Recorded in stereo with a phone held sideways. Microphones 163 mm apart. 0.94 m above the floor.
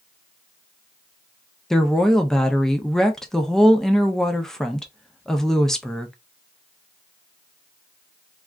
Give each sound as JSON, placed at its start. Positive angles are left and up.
{"t": 1.7, "sound": "a woman speaking", "side_deg": 5, "distance_m": 0.5}